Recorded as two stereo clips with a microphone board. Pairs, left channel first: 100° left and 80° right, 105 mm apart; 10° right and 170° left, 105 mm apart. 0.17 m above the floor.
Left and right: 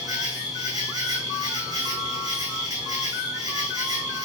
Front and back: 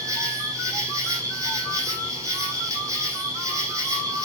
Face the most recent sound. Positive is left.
turn(degrees=-135)